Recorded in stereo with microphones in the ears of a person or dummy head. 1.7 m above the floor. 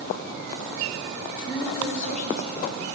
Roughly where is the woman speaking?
Centre.